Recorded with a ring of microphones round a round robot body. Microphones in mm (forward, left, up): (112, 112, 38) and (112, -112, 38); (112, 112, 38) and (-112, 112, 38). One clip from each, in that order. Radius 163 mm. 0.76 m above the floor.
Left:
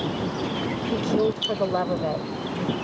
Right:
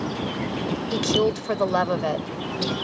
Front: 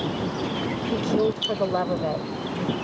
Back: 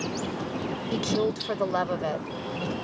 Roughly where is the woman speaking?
Behind right.